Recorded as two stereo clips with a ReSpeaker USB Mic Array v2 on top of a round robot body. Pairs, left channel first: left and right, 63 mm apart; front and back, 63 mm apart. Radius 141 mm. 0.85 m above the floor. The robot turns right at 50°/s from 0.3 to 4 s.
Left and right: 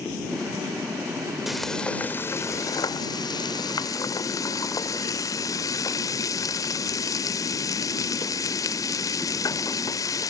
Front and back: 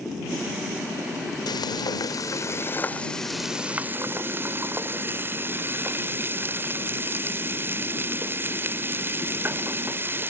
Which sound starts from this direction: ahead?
Frying, at 1.5 s.